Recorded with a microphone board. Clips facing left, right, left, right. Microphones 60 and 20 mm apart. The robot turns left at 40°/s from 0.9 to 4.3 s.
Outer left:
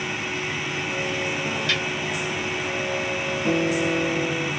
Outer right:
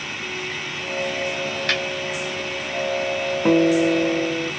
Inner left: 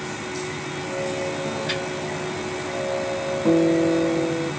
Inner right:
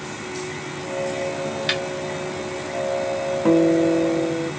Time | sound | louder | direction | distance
1.7 | a snare drum | outer right 3 dB, inner right 5 dB | 55° right (ahead or behind) | 1.0 m
3.5 | a guitar | outer right 7 dB, inner right 2 dB | 130° right | 0.5 m